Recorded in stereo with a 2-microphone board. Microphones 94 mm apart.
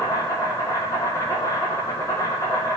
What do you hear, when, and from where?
0.0 s an insect: 30° left (ahead or behind), 1.1 m